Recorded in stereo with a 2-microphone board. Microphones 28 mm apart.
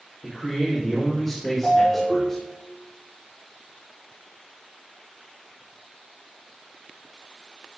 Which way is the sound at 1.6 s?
5° right (ahead or behind).